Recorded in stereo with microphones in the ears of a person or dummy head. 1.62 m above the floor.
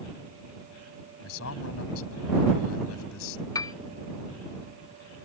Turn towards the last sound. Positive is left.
turn(degrees=20)  # may be behind; listen again after turning